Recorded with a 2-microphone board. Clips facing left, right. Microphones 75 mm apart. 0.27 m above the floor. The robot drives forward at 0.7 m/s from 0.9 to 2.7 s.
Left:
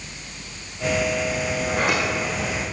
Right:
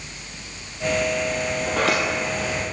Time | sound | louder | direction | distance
1.7 | a sliding door | right 1 dB | 85° right | 2.5 m